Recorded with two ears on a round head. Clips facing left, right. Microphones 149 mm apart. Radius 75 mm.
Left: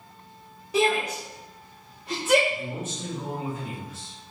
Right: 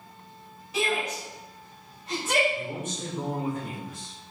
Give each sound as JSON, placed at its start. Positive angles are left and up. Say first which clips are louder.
{"t": 0.7, "sound": "a shout", "louder": "left 5 dB", "side_deg": 35, "distance_m": 1.8}
{"t": 2.5, "sound": "a man speaking", "louder": "even", "side_deg": -40, "distance_m": 3.5}